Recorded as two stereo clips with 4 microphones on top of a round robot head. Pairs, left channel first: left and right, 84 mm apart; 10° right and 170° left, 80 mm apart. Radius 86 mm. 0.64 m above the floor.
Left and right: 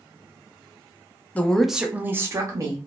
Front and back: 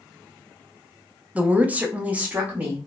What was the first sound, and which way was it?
A woman speaking, 130° left.